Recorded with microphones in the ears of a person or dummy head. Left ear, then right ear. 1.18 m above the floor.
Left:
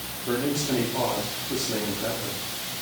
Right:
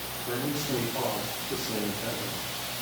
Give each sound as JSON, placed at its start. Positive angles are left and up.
{"t": 0.3, "sound": "a man speaking", "side_deg": 40, "distance_m": 2.5}